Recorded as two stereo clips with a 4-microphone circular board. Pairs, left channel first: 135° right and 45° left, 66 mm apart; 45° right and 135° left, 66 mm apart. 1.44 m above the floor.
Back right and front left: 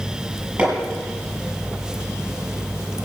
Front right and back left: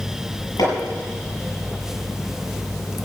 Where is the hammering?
25° right, 7 m.